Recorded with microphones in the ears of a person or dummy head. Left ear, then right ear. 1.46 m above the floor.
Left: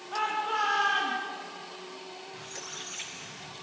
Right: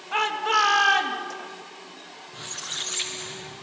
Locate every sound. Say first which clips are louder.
0.1 s a shout: right 7 dB; 75° right (ahead or behind), 2 m
2.3 s a squeak: right 10 dB; 30° right (ahead or behind), 0.5 m